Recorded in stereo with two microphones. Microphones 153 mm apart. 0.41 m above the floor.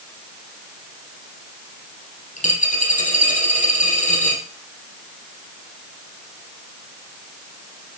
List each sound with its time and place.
2.4 s a dropped coin: 55° left (ahead or behind), 4 m